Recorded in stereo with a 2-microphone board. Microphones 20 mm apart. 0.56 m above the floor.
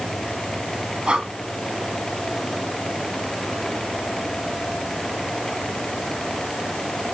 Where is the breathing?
50° right (ahead or behind), 1.0 m.